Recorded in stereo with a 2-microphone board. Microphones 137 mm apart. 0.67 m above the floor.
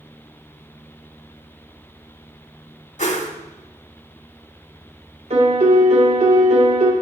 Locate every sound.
3.0 s a whoosh: 70° left (ahead or behind), 1.2 m
5.3 s a piano: 60° right (ahead or behind), 1.6 m